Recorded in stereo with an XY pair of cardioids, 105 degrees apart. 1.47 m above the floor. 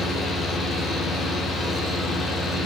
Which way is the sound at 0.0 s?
65° left.